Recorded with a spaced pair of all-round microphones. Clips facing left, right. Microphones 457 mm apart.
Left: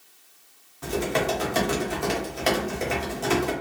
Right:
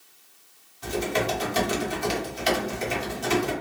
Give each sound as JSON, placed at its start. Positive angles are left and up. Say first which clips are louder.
{"t": 0.8, "sound": "typing on a keyboard", "louder": "left 1 dB", "side_deg": 65, "distance_m": 0.9}